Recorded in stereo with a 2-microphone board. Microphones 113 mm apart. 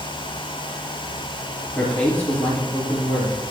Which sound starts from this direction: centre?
A man speaking, at 1.8 s.